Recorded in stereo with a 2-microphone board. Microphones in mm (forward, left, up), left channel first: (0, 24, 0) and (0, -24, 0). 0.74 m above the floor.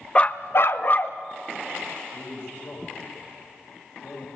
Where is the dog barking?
25° left (ahead or behind), 0.7 m; by 1.2 s 35° left (ahead or behind), 1.2 m.